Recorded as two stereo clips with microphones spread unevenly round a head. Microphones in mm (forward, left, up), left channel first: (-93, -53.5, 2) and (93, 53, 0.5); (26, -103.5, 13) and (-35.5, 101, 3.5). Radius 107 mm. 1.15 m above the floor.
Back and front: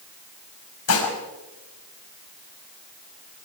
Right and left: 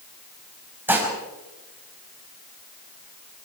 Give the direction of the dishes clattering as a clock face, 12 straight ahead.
6 o'clock.